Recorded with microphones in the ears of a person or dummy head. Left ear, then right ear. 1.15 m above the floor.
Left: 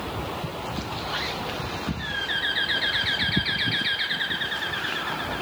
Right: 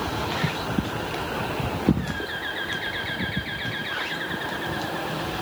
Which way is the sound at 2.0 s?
40° left (ahead or behind).